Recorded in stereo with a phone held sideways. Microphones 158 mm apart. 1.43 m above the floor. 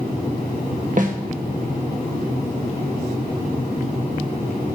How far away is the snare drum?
About 1.4 m.